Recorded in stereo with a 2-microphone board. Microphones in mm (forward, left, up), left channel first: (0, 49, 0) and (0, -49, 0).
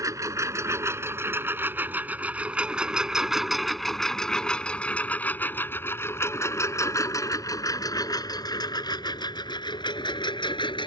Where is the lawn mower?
35° right (ahead or behind); by 10.9 s 55° left (ahead or behind).